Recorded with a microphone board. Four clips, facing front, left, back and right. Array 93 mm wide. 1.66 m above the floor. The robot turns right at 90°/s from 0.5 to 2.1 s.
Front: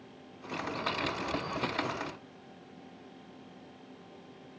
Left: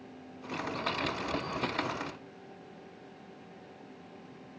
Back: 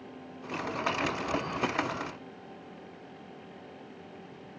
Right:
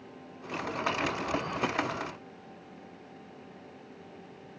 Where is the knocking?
I don't hear knocking.